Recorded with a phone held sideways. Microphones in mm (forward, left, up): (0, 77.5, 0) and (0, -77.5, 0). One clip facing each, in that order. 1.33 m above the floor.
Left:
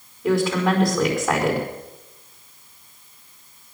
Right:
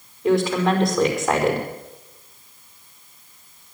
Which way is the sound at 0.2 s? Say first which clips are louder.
Right 1 dB; centre (ahead or behind).